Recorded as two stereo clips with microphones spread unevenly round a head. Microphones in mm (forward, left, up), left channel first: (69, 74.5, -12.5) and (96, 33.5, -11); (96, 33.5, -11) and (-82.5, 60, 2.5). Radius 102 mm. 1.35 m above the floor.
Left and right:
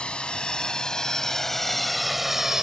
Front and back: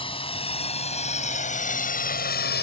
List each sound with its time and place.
0.0 s a drone: 55° left; by 2.6 s 20° left